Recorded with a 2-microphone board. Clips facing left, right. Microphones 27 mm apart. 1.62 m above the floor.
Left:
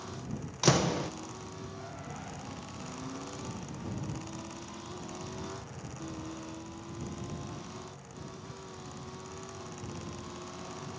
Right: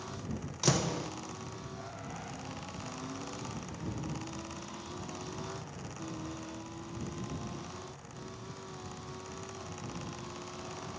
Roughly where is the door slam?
Centre.